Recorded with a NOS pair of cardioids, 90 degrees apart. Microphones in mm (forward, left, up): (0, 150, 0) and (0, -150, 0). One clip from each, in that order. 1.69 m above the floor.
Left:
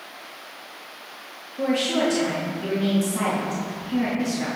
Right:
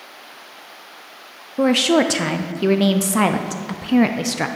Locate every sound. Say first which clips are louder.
1.6 s a woman speaking: right 7 dB; 65° right, 0.6 m